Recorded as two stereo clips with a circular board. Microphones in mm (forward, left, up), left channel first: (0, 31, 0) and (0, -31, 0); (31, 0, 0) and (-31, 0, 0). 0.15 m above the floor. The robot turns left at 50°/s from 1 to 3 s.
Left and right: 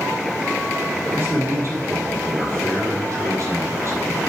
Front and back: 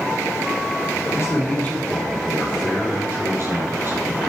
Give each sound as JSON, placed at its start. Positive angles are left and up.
{"t": 1.1, "sound": "a man speaking", "azimuth_deg": -35, "distance_m": 4.5}